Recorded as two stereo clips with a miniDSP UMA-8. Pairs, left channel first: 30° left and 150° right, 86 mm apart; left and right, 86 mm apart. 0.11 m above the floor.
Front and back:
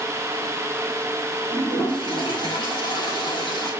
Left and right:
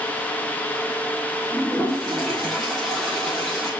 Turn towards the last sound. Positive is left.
turn(degrees=0)